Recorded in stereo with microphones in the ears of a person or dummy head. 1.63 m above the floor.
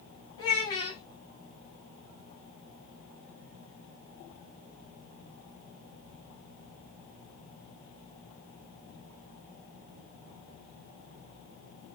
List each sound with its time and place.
0.4 s a child speaking: 20° left (ahead or behind), 0.8 m